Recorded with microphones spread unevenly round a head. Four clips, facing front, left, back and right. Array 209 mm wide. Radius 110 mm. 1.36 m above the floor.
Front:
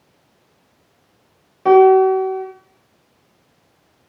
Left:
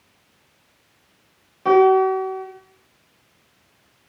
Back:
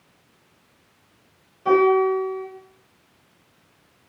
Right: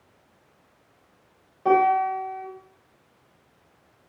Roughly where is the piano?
Ahead left.